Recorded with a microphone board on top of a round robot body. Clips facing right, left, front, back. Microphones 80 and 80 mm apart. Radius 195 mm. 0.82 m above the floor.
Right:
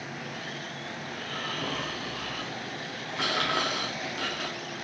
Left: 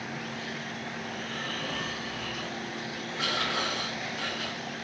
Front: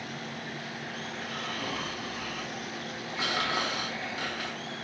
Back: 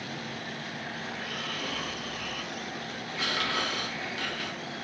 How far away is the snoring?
About 0.6 m.